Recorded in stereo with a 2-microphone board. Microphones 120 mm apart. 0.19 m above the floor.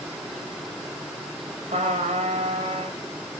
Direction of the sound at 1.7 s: 70° right (ahead or behind).